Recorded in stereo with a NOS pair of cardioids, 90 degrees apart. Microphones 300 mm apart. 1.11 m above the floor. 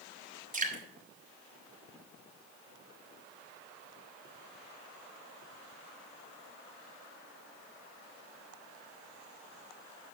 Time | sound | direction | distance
0.5 | dripping | 25° right | 2.5 m